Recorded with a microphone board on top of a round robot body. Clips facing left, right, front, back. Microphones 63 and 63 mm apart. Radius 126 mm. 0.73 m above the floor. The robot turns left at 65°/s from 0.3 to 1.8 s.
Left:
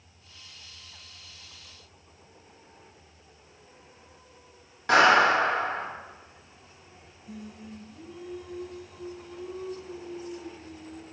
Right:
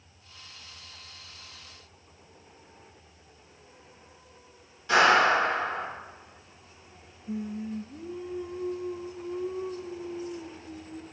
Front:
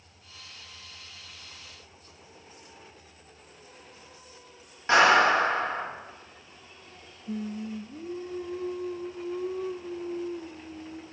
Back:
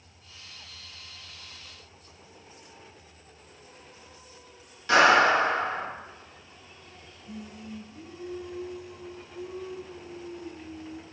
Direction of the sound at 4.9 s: 60° left.